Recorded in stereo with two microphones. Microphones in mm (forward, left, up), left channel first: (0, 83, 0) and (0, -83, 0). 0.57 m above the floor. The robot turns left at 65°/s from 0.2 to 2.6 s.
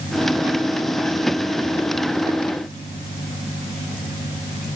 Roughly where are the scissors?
No scissors in this recording.